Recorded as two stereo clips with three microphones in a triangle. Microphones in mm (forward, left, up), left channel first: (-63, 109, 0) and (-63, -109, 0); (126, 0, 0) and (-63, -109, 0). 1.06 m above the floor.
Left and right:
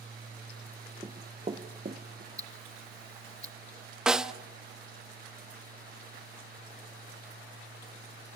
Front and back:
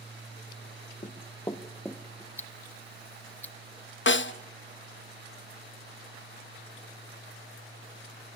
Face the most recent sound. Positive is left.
turn(degrees=-5)